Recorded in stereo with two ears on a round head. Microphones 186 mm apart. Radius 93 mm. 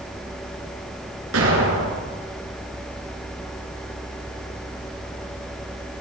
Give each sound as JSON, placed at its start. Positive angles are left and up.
{"t": 1.3, "sound": "an explosion", "side_deg": -80, "distance_m": 4.0}